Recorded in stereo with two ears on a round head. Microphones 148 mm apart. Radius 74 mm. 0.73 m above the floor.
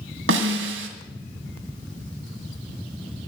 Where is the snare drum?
85° right, 2 m.